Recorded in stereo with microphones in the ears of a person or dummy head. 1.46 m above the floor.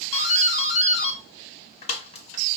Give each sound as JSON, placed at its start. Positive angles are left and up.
{"t": 0.1, "sound": "a doorbell", "side_deg": 30, "distance_m": 0.8}